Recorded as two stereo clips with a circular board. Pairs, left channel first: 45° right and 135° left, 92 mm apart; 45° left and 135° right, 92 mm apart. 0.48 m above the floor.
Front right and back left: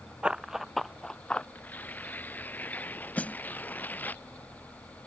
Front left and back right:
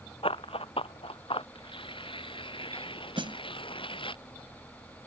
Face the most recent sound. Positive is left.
turn(degrees=-120)